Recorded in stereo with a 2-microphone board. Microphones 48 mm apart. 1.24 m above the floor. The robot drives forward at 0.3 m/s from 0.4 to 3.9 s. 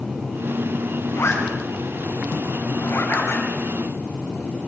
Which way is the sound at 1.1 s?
85° left.